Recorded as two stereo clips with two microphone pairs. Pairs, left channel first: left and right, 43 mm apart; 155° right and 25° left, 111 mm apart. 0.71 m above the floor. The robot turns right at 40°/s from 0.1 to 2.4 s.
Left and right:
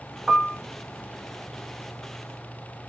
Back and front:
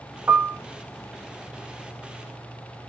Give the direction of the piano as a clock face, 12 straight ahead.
1 o'clock.